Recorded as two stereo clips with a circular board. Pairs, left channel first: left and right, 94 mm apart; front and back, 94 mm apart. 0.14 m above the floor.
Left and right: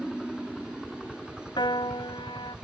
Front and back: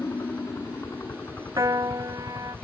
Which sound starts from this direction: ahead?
A helicopter, at 0.0 s.